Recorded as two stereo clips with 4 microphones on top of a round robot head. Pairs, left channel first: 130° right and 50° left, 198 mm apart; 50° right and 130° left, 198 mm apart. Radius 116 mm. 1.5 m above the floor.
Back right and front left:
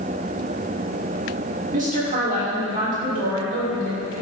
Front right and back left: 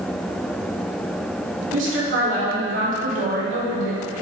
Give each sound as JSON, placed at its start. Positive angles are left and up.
{"t": 1.7, "sound": "a woman speaking", "azimuth_deg": 105, "distance_m": 6.0}